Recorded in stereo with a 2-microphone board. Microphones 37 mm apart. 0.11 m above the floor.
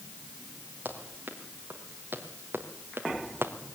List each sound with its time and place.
0.8 s running footsteps: 50° right (ahead or behind), 5.5 m; by 3.5 s 80° right, 2.5 m